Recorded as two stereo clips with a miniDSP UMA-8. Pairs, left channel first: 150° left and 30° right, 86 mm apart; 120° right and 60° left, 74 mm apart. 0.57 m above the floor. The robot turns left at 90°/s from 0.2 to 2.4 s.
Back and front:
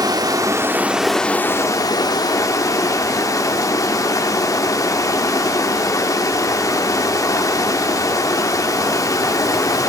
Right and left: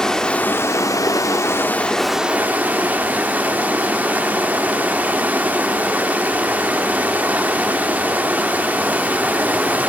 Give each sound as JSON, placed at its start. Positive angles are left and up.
{"t": 0.0, "sound": "running water", "azimuth_deg": -40, "distance_m": 1.3}